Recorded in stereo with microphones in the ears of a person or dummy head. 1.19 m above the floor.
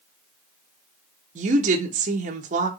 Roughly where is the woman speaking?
Right.